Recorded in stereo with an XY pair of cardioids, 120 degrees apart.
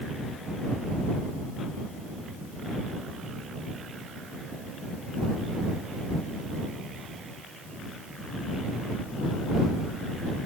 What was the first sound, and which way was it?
Only background noise.